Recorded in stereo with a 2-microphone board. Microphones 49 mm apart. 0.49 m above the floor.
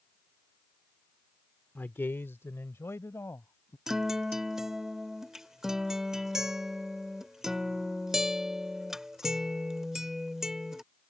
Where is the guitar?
10° right (ahead or behind).